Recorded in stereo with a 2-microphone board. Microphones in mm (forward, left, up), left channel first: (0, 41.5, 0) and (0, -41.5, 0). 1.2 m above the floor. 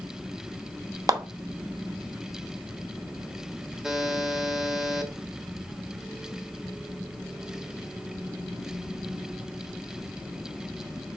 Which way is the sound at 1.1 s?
45° right (ahead or behind).